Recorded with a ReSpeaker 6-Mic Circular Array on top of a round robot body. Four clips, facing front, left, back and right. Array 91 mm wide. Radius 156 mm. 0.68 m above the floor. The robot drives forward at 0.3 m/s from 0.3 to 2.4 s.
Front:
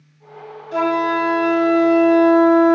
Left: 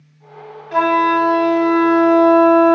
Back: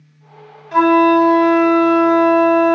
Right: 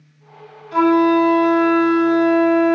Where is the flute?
140° left, 3 m; by 2.8 s 145° left, 3.5 m.